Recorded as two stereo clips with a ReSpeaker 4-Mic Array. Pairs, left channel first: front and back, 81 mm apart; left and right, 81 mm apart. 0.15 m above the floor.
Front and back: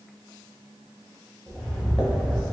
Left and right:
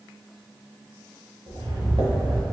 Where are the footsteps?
85° right, 1.7 m.